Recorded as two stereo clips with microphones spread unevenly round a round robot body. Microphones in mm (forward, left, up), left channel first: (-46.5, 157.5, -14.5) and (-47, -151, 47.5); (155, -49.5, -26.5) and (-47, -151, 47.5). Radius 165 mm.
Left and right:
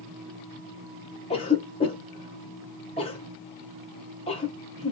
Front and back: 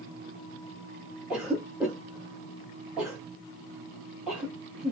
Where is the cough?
85° left, 0.7 m.